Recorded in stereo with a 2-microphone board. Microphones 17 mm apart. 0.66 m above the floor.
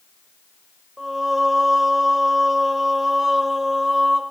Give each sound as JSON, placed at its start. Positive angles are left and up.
{"t": 1.0, "sound": "singing", "side_deg": -20, "distance_m": 2.5}